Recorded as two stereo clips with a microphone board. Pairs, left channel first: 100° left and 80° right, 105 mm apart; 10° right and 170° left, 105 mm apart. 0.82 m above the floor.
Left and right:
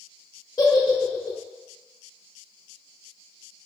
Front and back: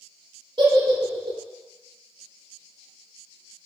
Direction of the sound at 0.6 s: 150° left.